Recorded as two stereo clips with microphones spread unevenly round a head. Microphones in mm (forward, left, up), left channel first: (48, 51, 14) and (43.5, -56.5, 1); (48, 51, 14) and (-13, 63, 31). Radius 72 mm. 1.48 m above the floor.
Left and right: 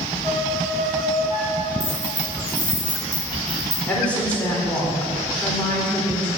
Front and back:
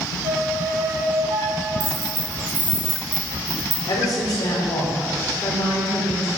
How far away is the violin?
About 6 m.